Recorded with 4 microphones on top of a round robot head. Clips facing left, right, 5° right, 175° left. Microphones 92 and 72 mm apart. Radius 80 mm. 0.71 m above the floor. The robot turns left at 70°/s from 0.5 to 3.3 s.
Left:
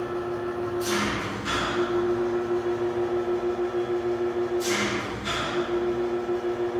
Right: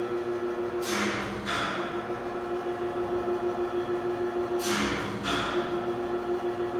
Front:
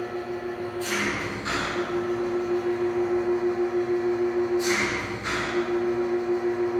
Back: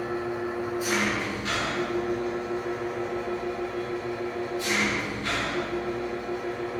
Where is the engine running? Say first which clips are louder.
Left 1 dB, back 1 dB; 120° left, 8.5 m; by 6.8 s 80° right, 8.5 m.